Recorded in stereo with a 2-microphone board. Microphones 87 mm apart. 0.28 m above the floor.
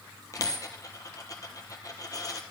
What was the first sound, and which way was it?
A dropped coin, 40° left (ahead or behind).